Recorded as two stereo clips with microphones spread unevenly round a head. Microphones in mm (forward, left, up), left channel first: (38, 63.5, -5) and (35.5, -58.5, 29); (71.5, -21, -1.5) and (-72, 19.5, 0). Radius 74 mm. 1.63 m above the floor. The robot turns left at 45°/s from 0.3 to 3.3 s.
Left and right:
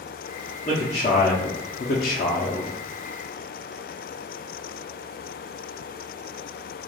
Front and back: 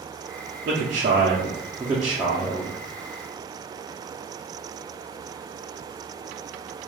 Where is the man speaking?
150° left, 0.5 m; by 2.7 s 60° left, 0.5 m.